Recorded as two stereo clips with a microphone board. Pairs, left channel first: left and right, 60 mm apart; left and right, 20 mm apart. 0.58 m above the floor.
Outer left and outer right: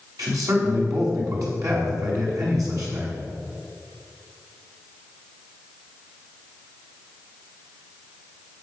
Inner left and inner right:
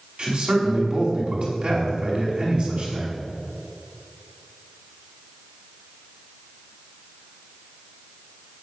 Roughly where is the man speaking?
Right.